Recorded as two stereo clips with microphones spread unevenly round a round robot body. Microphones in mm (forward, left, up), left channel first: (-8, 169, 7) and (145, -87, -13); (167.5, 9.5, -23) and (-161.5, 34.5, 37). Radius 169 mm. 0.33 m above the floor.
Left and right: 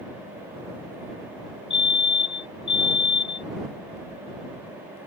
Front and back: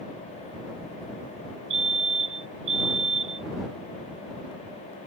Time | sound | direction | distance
1.7 | a fire alarm | 145° right | ?